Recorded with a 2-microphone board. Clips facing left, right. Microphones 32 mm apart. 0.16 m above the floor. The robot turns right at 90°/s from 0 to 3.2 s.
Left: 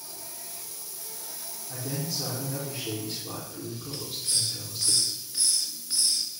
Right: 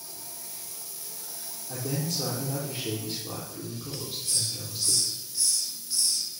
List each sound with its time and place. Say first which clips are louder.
1.7 s a man speaking: right 2 dB; 135° right, 5 m; by 4.9 s straight ahead, 5 m
3.9 s a hiss: left 2 dB; 40° left (ahead or behind), 2 m